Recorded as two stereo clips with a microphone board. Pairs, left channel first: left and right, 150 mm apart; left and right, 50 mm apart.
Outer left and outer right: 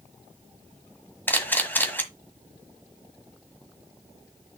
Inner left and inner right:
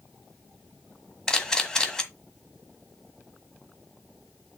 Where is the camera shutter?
15° left (ahead or behind), 1.5 m.